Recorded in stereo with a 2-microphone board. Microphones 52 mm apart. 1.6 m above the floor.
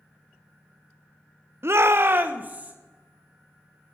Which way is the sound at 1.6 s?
50° right (ahead or behind).